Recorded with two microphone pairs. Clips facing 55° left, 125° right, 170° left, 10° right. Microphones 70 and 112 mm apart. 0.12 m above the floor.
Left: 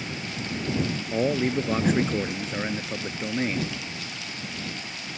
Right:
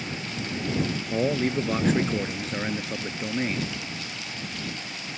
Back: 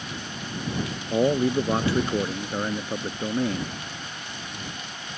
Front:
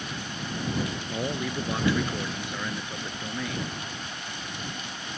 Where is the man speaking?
140° left.